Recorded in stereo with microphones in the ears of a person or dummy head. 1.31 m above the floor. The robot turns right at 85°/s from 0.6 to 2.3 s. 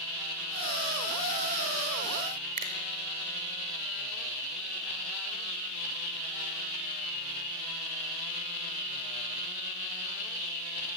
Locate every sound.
2.6 s a finger snap: 40° right (ahead or behind), 5 m